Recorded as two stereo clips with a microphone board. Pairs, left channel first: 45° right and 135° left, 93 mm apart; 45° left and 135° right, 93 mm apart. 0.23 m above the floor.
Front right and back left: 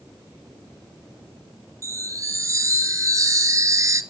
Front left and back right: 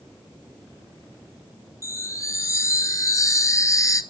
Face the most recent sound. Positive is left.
turn(degrees=90)